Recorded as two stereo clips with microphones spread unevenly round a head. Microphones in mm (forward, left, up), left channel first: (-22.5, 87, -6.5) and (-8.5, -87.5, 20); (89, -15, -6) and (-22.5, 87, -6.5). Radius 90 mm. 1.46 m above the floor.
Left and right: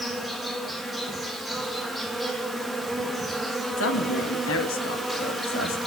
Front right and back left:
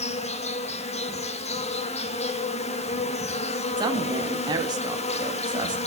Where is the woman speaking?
75° left, 2 m.